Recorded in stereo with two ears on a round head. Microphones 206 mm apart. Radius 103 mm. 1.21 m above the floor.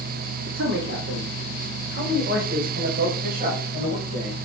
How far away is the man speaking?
About 3 m.